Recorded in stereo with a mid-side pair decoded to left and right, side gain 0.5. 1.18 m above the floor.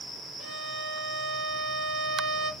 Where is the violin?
65° right, 1.1 m.